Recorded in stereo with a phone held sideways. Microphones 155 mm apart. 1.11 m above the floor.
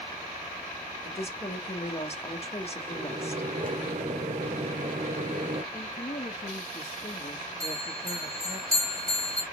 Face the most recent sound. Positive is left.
turn(degrees=-25)  # may be behind; listen again after turning